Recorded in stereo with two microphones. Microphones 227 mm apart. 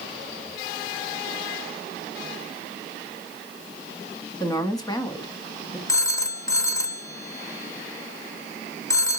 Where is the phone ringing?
15° left (ahead or behind), 0.6 m.